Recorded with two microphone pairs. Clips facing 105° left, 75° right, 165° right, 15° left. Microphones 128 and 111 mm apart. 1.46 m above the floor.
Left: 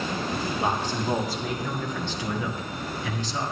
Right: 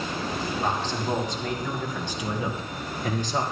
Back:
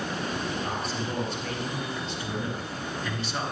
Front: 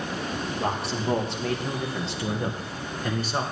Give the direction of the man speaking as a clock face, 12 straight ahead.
11 o'clock.